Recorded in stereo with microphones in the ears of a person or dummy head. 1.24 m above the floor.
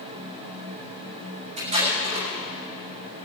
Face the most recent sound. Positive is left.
turn(degrees=-35)  # may be behind; listen again after turning